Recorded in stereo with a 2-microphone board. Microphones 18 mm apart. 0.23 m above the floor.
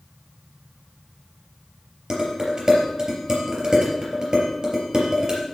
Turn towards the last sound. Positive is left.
turn(degrees=-35)  # may be behind; listen again after turning